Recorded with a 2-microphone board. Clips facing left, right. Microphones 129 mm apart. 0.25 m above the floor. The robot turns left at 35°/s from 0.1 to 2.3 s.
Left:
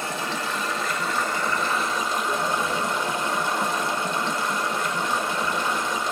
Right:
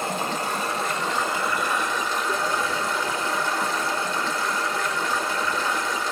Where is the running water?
125° right, 1.3 m; by 6.1 s 160° left, 1.3 m.